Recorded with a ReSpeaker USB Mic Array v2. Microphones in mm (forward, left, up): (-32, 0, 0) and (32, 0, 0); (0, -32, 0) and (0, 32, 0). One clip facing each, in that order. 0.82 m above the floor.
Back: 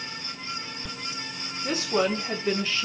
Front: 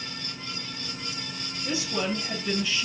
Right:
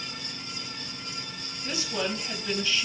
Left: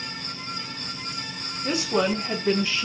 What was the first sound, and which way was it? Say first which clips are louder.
A woman speaking: back 4 dB, left 8 dB; 130° left.